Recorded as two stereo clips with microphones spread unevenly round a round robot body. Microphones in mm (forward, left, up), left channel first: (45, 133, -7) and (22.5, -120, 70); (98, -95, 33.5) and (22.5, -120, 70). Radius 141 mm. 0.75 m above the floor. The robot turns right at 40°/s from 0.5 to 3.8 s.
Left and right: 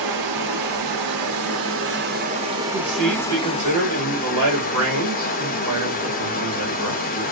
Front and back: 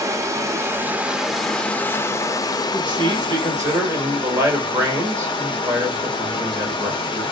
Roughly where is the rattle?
I don't hear a rattle.